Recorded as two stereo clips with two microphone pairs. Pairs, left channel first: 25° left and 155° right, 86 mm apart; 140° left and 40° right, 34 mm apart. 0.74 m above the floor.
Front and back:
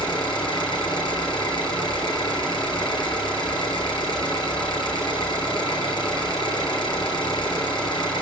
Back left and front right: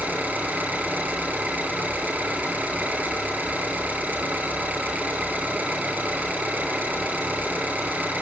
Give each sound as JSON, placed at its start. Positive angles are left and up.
{"t": 0.0, "sound": "an engine running", "azimuth_deg": -5, "distance_m": 6.0}